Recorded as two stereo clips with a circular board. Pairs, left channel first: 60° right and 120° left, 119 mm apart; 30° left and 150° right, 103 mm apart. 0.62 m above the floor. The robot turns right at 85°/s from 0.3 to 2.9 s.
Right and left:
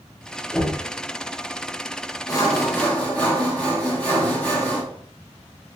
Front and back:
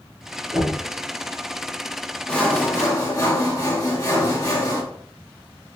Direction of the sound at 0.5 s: 150° right.